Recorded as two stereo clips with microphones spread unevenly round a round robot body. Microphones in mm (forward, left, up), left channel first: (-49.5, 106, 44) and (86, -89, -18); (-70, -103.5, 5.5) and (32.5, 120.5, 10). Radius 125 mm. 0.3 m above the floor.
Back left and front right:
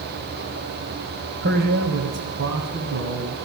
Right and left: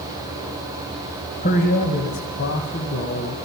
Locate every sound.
1.4 s a man speaking: 65° right, 1.3 m; by 3.4 s 80° right, 2 m